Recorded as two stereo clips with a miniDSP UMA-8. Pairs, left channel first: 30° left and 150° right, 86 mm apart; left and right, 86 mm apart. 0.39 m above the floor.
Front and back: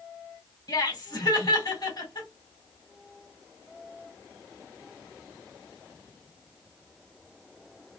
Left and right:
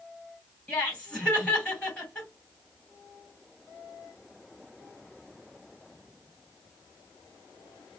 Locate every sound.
0.7 s laughter: 15° left, 3 m